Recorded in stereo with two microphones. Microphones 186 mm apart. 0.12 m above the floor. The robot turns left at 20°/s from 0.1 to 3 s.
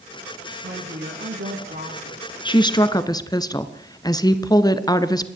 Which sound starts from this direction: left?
A woman speaking, at 2.5 s.